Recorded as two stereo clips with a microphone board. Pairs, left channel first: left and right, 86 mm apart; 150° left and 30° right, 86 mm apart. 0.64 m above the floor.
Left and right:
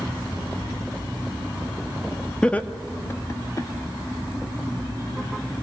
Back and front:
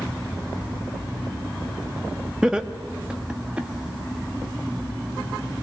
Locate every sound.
2.4 s laughter: 35° left, 0.9 m; by 3.7 s 45° left, 1.8 m